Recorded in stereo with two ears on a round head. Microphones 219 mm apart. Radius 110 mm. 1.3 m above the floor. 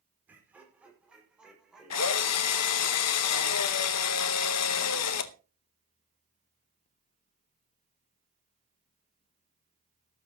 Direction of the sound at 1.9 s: 70° left (ahead or behind).